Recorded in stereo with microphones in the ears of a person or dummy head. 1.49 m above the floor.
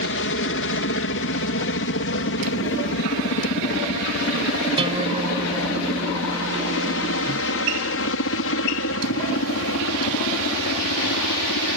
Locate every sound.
0.0 s a helicopter: 55° left (ahead or behind); by 11.8 s 65° left (ahead or behind)
4.8 s a guitar: 25° right (ahead or behind)